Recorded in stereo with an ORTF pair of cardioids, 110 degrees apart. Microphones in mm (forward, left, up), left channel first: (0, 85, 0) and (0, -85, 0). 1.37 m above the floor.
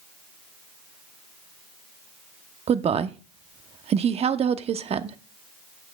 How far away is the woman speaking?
About 0.9 m.